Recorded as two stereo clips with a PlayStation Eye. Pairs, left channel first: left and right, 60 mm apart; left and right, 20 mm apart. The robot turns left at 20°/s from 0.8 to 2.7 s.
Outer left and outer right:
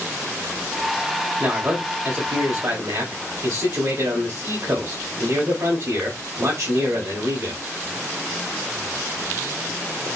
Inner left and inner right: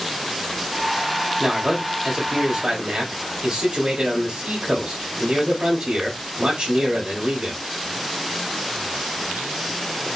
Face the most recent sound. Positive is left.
turn(degrees=-65)  # may be behind; listen again after turning